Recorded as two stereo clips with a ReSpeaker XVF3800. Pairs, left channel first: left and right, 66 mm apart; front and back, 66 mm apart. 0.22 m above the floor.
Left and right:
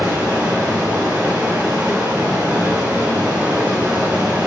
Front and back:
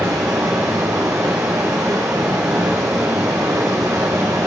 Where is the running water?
160° right, 2.5 m.